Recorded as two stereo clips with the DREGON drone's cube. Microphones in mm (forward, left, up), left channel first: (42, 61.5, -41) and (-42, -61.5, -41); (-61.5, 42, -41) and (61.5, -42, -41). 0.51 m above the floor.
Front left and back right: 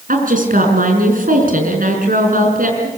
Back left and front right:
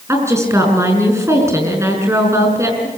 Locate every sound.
0.1 s a woman speaking: 105° right, 5.5 m